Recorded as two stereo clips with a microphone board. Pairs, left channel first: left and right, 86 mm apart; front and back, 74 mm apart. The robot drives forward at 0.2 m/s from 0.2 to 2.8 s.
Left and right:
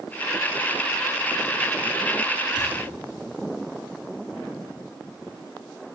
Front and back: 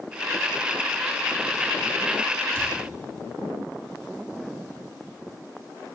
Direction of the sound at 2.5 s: 125° right.